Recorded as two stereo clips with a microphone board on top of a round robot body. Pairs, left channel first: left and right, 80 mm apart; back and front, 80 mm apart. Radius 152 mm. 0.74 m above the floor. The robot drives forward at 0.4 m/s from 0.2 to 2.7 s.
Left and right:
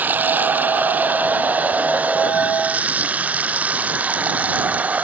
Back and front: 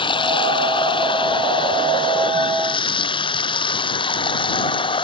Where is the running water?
160° right; by 5.0 s 165° right.